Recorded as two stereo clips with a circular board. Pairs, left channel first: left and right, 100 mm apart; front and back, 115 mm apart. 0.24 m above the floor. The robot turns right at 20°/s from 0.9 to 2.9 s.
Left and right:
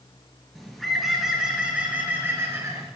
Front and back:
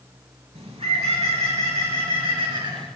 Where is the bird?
175° left, 4 m; by 2.9 s 145° right, 4 m.